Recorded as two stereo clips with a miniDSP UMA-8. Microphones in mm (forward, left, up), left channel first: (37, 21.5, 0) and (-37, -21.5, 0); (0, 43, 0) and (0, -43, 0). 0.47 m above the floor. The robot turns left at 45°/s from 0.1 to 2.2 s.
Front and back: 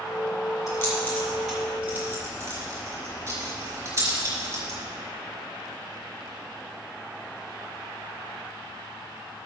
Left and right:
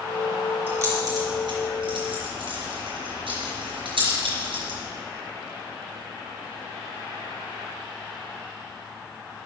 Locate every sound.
0.7 s keys jangling: 25° right, 4.5 m; by 4.8 s 95° right, 4.5 m